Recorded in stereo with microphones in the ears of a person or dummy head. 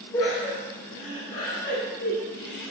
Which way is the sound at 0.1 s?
20° left (ahead or behind).